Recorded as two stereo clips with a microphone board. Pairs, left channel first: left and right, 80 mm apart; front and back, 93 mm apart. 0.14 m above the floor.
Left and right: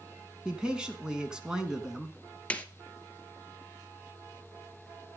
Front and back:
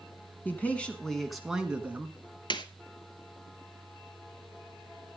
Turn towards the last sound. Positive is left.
turn(degrees=20)